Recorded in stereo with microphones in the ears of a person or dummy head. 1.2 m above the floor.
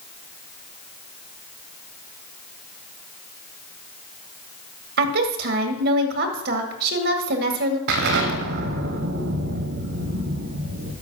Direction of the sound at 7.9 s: 65° right (ahead or behind).